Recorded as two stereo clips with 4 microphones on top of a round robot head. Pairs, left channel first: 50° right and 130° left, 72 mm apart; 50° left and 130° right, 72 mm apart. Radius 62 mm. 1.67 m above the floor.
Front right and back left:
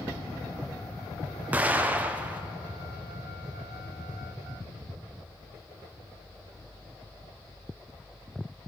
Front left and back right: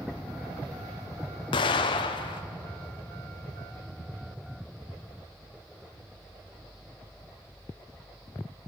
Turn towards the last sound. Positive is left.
turn(degrees=60)